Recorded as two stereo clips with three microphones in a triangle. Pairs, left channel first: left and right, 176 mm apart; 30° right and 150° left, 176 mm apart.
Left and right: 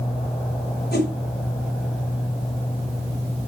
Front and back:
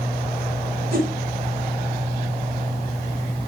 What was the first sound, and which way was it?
A whoosh, 115° left.